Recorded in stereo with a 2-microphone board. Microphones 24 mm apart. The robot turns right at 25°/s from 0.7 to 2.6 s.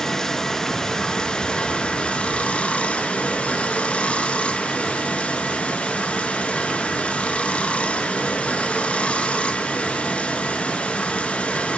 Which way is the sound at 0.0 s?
25° left.